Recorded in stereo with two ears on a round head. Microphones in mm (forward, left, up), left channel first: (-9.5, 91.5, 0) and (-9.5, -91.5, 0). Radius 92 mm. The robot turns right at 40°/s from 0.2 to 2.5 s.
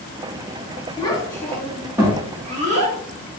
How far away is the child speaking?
About 1.3 m.